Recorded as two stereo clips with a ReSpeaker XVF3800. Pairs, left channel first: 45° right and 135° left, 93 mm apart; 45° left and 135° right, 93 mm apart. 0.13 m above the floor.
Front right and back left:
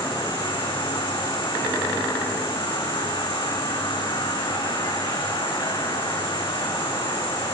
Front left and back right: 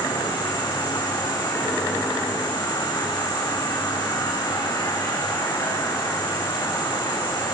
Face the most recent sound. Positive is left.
turn(degrees=-5)